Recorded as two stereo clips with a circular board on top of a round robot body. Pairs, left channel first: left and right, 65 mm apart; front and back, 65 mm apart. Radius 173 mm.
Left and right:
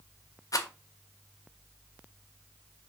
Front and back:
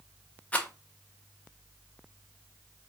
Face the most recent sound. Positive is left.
turn(degrees=70)